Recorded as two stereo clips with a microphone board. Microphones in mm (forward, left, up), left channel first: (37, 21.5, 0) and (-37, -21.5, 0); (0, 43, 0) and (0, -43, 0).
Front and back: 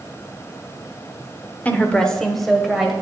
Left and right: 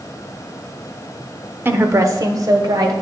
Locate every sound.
1.6 s a woman speaking: 35° right, 1.0 m; by 2.9 s 65° right, 1.9 m